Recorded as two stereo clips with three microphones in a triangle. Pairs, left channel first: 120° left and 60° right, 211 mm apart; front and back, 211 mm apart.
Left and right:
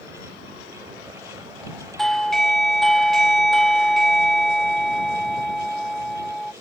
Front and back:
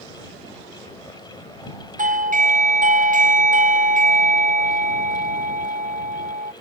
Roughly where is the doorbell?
Behind right.